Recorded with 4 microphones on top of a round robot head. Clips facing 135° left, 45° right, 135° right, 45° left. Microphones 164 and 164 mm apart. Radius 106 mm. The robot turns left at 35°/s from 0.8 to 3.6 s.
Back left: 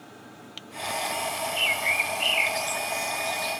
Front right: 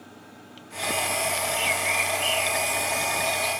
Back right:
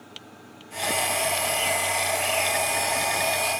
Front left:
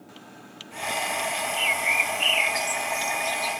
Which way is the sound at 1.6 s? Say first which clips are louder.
Front right 3 dB, back right 3 dB; 85° left.